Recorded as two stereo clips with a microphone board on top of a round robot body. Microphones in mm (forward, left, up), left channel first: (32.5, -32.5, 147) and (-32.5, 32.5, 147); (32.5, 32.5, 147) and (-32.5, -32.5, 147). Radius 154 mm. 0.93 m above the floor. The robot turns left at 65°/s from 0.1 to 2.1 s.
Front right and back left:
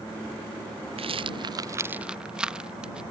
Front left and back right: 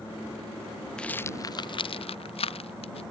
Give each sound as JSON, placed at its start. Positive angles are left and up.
{"t": 1.0, "sound": "a rattle", "azimuth_deg": 125}